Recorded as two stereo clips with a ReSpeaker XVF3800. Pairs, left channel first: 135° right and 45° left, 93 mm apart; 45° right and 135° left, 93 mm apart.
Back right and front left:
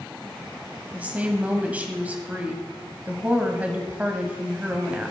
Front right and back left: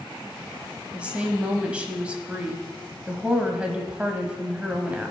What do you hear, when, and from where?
0.9 s a woman speaking: 85° left, 1.2 m